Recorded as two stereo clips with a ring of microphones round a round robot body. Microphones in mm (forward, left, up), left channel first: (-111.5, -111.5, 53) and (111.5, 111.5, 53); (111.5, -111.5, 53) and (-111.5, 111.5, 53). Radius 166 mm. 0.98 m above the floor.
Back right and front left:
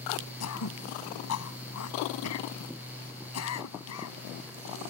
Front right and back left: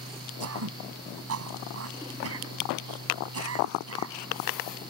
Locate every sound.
0.4 s throat clearing: straight behind